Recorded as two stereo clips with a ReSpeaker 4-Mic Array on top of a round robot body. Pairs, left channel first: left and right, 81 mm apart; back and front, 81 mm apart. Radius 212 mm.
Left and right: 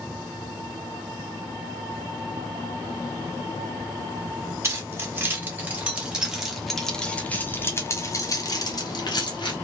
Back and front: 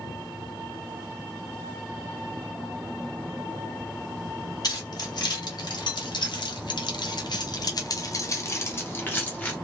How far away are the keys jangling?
About 1.8 m.